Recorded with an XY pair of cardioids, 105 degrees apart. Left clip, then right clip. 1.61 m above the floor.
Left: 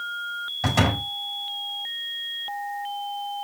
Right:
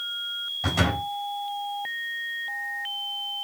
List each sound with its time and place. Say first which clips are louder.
0.6 s a door slam: left 3 dB; 45° left, 5 m